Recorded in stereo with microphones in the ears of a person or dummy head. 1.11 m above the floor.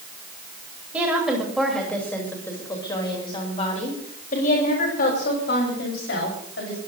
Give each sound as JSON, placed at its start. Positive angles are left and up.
{"t": 0.9, "sound": "a woman speaking", "side_deg": -10, "distance_m": 5.5}